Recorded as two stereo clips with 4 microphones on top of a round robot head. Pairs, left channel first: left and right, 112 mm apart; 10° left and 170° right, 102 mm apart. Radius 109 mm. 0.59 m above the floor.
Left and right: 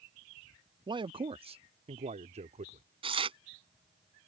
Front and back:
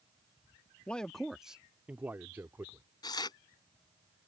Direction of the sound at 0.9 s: 65° right.